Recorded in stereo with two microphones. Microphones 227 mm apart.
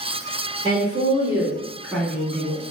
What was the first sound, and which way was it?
A woman speaking, 25° right (ahead or behind).